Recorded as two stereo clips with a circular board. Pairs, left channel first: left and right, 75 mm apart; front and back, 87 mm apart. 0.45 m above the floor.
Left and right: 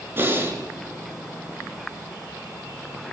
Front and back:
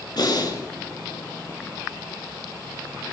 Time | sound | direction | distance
0.2 | breathing | 30° right | 6.5 m